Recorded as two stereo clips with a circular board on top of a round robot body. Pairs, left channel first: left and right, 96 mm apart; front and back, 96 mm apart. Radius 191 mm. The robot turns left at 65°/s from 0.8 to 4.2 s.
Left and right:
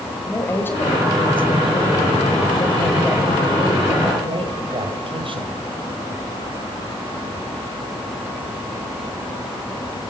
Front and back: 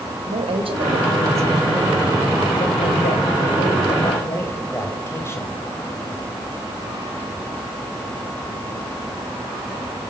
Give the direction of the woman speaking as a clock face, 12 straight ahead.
7 o'clock.